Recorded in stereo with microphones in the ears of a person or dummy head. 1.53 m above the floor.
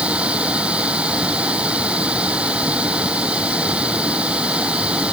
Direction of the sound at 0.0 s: Centre (ahead or behind).